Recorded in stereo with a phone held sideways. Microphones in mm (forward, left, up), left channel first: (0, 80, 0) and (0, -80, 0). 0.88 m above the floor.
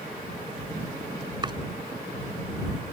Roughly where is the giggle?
I don't hear a giggle.